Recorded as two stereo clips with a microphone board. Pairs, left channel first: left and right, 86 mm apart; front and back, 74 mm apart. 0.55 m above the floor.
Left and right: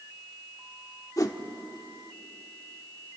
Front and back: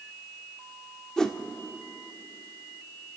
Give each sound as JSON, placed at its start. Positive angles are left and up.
{"t": 1.2, "sound": "a whoosh", "azimuth_deg": 75, "distance_m": 1.2}